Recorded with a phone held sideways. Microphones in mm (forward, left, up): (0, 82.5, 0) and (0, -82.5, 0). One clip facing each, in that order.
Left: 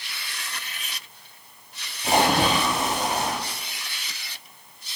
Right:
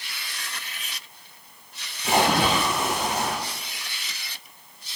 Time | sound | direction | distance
2.0 | a splash | 35° left (ahead or behind) | 6 m